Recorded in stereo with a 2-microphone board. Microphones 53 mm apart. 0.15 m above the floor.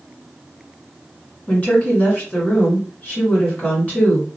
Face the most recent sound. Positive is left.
turn(degrees=30)  # may be behind; listen again after turning